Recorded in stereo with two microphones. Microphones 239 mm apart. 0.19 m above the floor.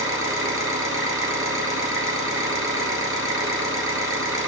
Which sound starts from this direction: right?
An engine running, at 0.0 s.